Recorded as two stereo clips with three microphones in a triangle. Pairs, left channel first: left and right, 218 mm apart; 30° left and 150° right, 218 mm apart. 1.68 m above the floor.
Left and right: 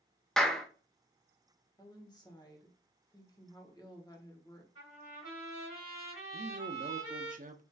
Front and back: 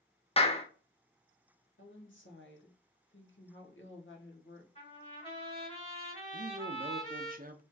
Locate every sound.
0.4 s a clap: 5° left, 0.5 m
1.8 s a woman speaking: 25° left, 1.1 m
4.8 s a trumpet: 90° left, 3 m
6.3 s a man speaking: 125° right, 0.6 m